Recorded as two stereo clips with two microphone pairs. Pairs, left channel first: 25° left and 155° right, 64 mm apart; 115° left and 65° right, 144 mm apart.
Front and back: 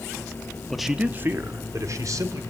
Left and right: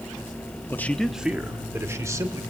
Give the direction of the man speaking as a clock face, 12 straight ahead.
9 o'clock.